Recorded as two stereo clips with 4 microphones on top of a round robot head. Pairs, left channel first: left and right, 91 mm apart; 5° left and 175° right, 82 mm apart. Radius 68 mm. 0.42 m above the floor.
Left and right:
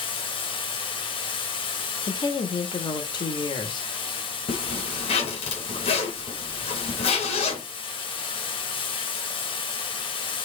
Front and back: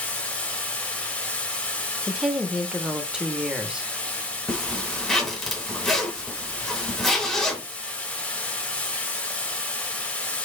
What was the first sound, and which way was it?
Running water, 80° left.